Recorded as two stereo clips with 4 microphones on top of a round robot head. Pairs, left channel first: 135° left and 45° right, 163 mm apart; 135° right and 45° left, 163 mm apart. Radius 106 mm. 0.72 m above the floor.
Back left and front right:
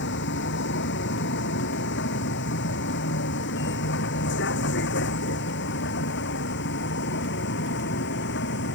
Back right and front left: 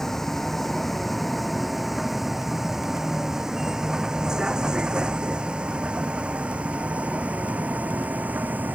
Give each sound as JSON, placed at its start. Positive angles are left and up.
{"t": 0.0, "sound": "a vehicle", "azimuth_deg": 135}